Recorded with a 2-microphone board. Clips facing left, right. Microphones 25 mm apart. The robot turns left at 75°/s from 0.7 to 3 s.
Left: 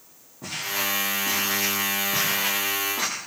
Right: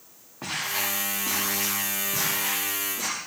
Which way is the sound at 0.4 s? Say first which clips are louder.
Left 1 dB; 60° right (ahead or behind).